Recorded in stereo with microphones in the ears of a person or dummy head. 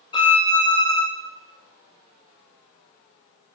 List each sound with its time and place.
0.1 s a violin: 25° left (ahead or behind), 0.5 m